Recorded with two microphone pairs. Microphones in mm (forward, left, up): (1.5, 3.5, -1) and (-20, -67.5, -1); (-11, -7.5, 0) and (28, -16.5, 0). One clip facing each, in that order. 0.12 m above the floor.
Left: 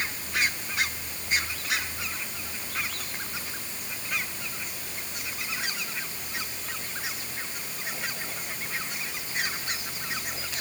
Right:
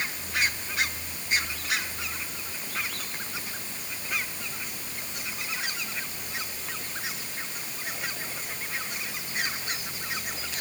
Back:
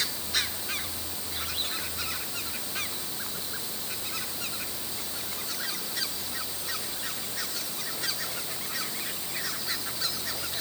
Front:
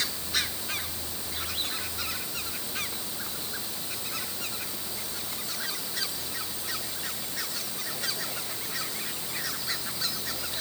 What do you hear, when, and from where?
Only background noise.